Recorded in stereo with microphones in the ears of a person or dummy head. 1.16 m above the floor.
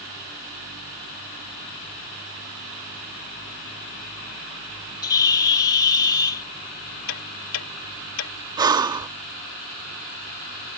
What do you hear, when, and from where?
5.0 s a bird: 20° left (ahead or behind)
7.1 s ticking: 80° left
8.6 s breathing: 20° right (ahead or behind)